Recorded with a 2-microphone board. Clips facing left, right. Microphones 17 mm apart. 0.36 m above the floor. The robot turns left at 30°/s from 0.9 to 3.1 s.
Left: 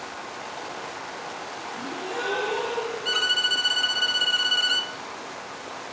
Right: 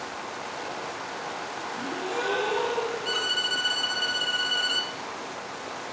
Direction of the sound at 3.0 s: 25° left (ahead or behind).